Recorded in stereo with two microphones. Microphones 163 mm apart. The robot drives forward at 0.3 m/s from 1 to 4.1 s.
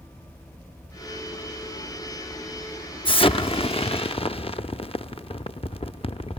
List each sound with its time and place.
3.0 s an explosion: 30° left (ahead or behind), 0.6 m; by 6.4 s 35° left (ahead or behind), 0.5 m